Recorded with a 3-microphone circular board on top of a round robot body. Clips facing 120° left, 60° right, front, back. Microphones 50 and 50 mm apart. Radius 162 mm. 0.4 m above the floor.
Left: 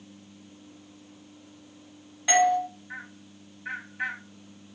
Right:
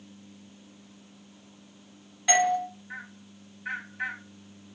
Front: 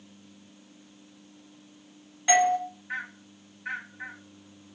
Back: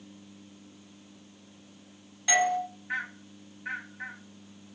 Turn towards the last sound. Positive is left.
turn(degrees=45)